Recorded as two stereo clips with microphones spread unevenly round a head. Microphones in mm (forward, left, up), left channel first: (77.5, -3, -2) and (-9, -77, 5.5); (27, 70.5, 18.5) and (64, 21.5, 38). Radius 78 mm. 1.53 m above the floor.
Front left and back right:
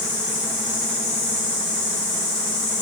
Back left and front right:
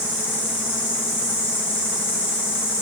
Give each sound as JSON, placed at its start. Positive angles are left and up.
{"t": 0.0, "sound": "an insect", "azimuth_deg": 70, "distance_m": 2.5}